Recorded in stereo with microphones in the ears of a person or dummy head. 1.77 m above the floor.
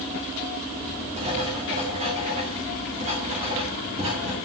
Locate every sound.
1.2 s writing: 30° right (ahead or behind), 2 m